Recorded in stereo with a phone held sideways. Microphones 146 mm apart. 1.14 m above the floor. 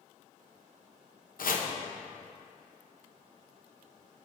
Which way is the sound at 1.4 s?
80° left.